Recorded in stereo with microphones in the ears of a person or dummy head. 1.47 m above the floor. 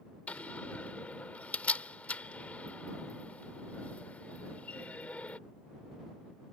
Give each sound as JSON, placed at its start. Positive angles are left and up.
{"t": 0.3, "sound": "a door slam", "side_deg": 5}